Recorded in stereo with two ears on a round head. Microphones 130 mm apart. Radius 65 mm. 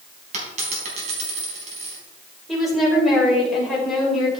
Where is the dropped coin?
45° right (ahead or behind), 4 m.